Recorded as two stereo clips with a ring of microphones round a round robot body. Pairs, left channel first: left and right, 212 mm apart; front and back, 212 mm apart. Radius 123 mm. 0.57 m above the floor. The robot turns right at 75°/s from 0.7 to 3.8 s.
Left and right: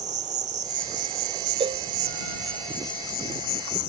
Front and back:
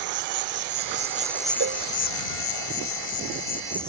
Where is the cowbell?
155° right; by 1.8 s 140° right.